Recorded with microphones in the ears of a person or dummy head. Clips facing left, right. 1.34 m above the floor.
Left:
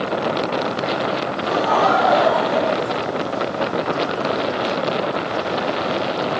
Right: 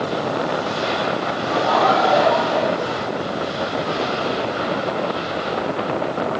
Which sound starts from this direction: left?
Laughter, at 1.4 s.